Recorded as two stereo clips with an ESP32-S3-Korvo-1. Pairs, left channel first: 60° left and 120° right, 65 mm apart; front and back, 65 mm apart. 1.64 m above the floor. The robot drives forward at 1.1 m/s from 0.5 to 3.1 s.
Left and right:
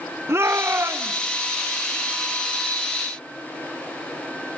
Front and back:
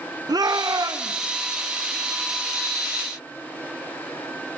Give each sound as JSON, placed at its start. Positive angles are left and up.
{"t": 0.3, "sound": "a shout", "azimuth_deg": -170, "distance_m": 1.4}